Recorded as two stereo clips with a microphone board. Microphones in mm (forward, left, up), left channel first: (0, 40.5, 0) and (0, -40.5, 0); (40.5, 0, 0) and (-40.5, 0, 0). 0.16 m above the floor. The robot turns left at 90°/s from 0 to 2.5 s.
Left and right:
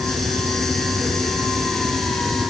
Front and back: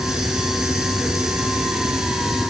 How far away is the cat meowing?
I don't hear a cat meowing.